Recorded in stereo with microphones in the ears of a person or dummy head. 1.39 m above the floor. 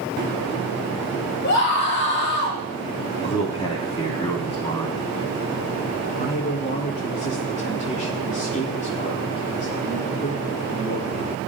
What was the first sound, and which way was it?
A scream, 60° left (ahead or behind).